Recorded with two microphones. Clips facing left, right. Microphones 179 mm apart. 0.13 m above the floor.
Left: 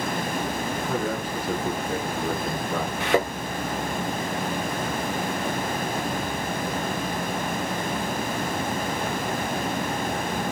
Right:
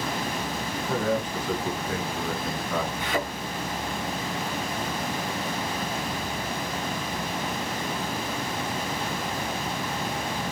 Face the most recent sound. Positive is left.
turn(degrees=75)  # may be behind; listen again after turning